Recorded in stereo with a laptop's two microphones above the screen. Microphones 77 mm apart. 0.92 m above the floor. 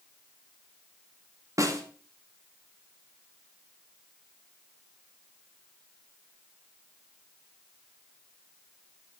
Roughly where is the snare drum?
Right.